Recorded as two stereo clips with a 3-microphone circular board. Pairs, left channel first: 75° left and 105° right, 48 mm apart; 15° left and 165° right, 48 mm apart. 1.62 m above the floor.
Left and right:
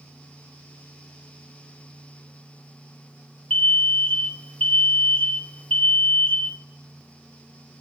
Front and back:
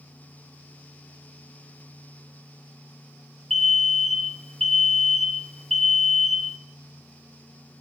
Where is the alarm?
95° left, 0.5 m.